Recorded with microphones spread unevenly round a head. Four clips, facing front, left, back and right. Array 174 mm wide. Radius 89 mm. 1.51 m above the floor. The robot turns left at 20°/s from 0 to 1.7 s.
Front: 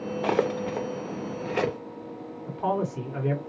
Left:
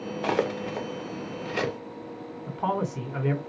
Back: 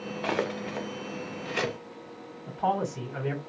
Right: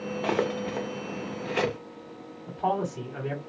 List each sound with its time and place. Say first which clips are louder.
0.2 s cutlery clinking: left 1 dB, front 5 dB; 15° left, 0.6 m; by 1.8 s 15° right, 0.6 m
2.5 s a man speaking: even, even; 115° left, 2.0 m